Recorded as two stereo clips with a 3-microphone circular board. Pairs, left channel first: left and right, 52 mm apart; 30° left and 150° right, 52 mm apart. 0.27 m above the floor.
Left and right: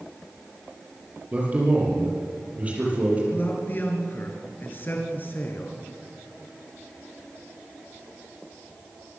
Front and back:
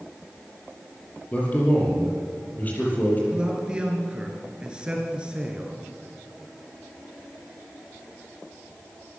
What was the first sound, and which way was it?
A man speaking, 30° right.